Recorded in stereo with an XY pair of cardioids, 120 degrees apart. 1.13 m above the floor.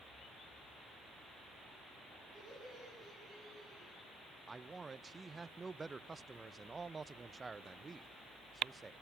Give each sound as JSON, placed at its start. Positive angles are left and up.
{"t": 2.3, "sound": "laughter", "azimuth_deg": 40, "distance_m": 10.0}
{"t": 4.5, "sound": "a man speaking", "azimuth_deg": -20, "distance_m": 0.6}